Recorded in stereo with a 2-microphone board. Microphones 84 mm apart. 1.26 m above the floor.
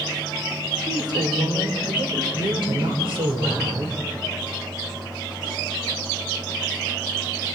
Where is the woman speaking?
55° right (ahead or behind), 4.5 m; by 4.0 s 85° right, 5 m.